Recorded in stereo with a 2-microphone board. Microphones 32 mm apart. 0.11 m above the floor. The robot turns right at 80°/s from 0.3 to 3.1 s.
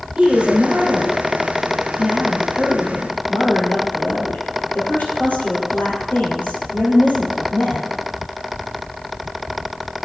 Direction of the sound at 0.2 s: 130° right.